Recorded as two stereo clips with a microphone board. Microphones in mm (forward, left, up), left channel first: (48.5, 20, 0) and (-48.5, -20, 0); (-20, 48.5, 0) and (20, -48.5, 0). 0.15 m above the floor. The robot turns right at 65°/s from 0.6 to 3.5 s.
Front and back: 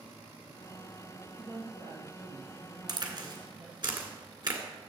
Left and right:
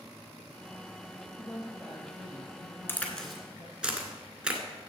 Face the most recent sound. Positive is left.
turn(degrees=-145)